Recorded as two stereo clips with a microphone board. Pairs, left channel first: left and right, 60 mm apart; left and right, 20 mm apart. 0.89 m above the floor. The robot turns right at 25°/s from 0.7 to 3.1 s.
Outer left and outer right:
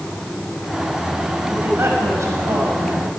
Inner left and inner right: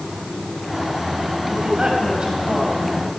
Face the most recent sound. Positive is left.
turn(degrees=-105)